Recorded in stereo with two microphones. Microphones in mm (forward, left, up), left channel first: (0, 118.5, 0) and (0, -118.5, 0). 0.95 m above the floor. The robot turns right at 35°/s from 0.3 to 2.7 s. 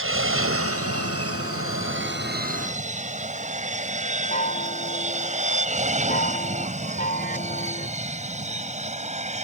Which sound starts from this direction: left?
A chime, at 4.3 s.